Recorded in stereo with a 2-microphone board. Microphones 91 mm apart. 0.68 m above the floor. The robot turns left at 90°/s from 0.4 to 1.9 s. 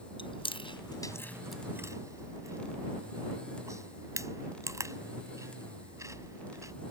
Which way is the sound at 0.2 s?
80° left.